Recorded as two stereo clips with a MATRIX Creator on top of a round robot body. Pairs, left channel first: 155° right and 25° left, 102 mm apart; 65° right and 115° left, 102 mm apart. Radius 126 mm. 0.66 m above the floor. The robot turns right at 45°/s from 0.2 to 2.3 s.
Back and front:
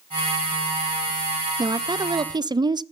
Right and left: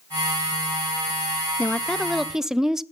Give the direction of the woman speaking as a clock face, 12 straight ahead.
12 o'clock.